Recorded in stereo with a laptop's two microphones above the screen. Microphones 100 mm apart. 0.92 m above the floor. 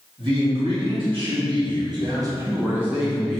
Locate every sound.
0.2 s a man speaking: 60° right (ahead or behind), 1.6 m; by 3.4 s 10° left (ahead or behind), 0.7 m